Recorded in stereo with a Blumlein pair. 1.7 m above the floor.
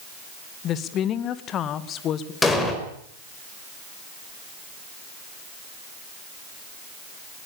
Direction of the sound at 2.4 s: 10° left.